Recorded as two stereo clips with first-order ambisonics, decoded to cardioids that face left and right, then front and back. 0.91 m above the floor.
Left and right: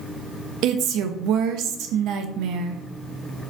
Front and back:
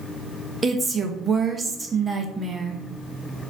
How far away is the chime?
I don't hear a chime.